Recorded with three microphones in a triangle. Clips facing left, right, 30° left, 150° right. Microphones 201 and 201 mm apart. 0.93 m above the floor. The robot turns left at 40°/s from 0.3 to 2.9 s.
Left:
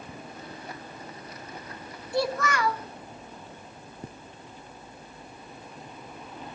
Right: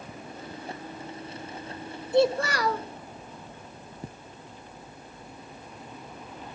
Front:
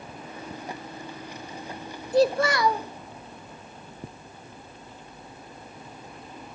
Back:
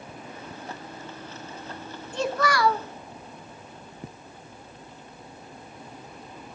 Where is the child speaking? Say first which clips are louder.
Right 5 dB, front 5 dB; 20° right, 0.9 m; by 2.9 s 50° right, 0.9 m.